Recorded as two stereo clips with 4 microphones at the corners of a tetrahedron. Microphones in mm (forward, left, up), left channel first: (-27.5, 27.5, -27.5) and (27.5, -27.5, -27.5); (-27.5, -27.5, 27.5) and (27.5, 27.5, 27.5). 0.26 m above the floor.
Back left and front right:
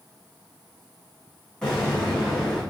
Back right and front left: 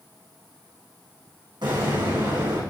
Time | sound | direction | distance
1.6 | an explosion | 55° left | 9.5 m